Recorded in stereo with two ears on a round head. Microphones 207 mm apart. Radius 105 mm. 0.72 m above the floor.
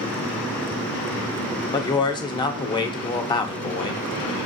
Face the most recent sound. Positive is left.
turn(degrees=20)  # may be behind; listen again after turning